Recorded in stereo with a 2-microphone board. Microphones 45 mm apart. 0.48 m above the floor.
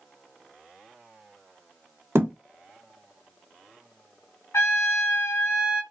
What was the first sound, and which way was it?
A thud, 65° right (ahead or behind).